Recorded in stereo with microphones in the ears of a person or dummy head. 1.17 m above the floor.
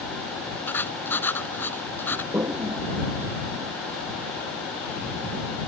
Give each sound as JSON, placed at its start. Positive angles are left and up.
{"t": 0.7, "sound": "writing", "side_deg": 10}
{"t": 2.3, "sound": "a toilet flushing", "side_deg": -15}